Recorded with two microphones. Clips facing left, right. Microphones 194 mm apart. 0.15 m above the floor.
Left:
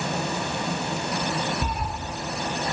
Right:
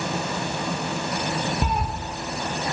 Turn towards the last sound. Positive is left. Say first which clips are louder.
# right 4 dB
turn(degrees=-80)